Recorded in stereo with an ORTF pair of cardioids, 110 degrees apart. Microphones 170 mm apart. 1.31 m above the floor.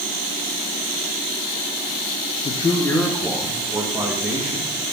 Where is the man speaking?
40° left, 0.8 m; by 4.8 s 15° right, 2.5 m.